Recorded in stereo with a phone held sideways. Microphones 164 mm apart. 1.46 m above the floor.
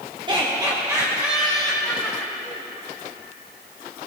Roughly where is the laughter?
Right.